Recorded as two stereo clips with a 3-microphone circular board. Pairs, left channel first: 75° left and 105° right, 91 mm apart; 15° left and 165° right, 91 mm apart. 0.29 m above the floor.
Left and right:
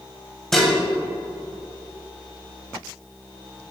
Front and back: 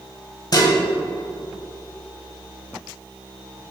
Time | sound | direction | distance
0.5 | dishes clattering | 10° right | 0.8 m